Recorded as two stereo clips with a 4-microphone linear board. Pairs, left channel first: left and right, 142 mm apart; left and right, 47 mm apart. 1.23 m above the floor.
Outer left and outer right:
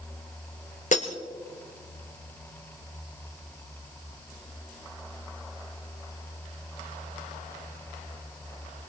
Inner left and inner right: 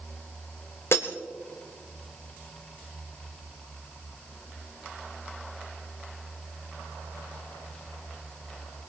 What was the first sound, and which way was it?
Breaking glass, 60° left (ahead or behind).